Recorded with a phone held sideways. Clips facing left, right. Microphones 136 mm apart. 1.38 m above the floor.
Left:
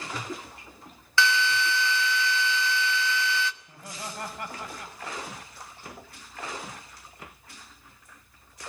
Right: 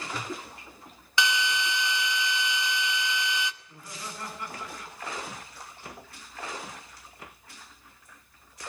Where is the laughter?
65° left (ahead or behind), 7.5 m.